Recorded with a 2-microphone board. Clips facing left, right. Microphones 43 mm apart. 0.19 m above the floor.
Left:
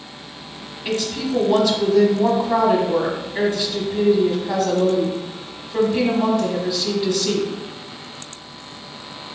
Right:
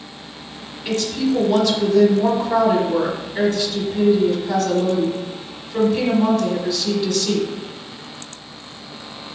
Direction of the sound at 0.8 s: 15° left (ahead or behind).